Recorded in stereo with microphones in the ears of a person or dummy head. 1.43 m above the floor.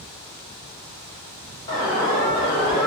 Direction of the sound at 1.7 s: 35° left (ahead or behind).